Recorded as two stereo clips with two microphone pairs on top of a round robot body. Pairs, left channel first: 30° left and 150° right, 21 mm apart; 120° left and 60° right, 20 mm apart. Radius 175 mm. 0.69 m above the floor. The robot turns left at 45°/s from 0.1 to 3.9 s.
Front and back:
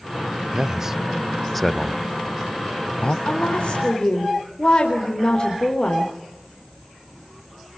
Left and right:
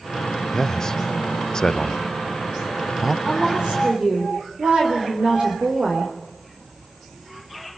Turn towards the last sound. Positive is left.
turn(degrees=-20)